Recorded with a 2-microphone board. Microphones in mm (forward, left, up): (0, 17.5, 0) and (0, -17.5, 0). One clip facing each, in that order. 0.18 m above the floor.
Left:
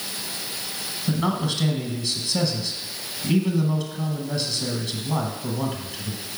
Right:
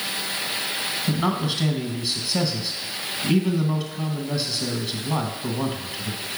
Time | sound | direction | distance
1.1 | a man speaking | 10° right (ahead or behind) | 1.1 m